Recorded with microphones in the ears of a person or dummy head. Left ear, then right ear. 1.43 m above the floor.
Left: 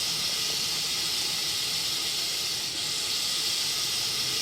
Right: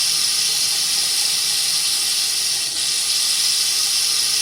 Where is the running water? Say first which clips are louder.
Right 9 dB; 55° right (ahead or behind), 1.7 m.